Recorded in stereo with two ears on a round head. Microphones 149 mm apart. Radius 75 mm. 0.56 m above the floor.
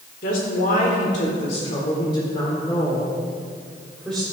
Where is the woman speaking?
55° left (ahead or behind), 1.9 m; by 4.2 s centre (ahead or behind), 2.5 m.